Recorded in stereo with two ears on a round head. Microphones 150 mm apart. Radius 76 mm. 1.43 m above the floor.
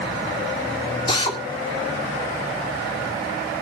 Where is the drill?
30° left (ahead or behind), 2.5 m.